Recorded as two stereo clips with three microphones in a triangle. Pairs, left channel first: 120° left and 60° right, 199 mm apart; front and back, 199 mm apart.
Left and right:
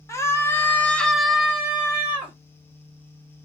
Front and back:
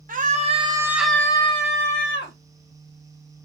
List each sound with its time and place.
0.1 s a scream: 170° right, 0.8 m; by 2.4 s 15° left, 1.0 m